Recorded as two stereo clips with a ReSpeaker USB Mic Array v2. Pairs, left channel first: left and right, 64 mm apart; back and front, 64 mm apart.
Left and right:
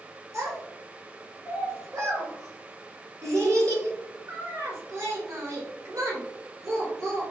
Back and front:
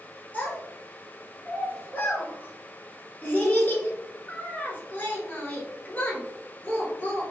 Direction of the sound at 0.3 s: 120° right.